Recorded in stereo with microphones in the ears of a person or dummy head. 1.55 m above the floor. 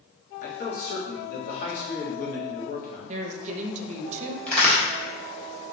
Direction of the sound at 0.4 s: 55° left (ahead or behind).